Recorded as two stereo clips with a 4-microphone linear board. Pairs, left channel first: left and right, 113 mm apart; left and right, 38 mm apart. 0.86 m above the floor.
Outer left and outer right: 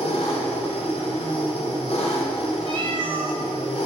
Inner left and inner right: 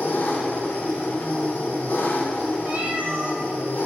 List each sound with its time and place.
0.0 s an engine running: 55° left (ahead or behind), 1.7 m
2.6 s a cat meowing: 45° right (ahead or behind), 0.7 m